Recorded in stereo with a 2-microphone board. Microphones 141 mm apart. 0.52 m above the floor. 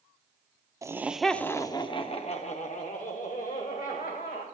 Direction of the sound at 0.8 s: 20° right (ahead or behind).